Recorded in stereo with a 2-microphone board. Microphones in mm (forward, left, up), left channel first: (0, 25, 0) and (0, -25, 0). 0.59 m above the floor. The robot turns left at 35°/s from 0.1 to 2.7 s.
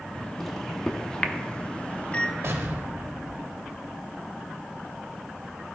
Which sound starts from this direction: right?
An explosion, at 2.4 s.